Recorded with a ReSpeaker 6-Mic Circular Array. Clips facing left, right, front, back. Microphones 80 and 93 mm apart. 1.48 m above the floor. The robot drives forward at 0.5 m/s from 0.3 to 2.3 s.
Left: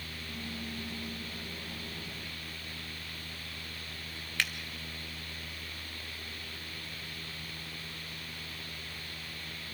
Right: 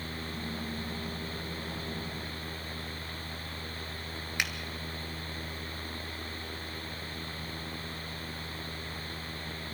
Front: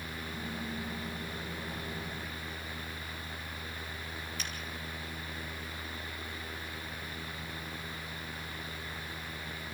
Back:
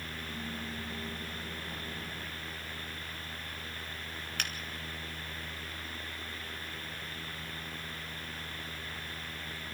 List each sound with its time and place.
4.4 s a finger snap: 160° right, 2.5 m